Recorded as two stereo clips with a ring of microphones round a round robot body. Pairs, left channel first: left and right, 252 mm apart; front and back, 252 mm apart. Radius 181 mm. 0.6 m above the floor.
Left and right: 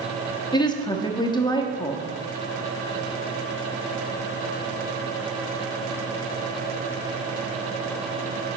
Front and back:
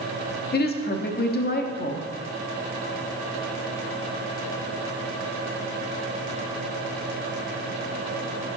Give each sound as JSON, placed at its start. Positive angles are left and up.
{"t": 0.5, "sound": "a woman speaking", "azimuth_deg": 25, "distance_m": 1.0}